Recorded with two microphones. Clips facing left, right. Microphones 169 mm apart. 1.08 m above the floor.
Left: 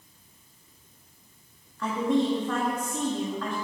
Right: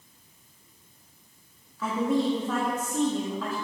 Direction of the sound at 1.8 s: 5° right (ahead or behind).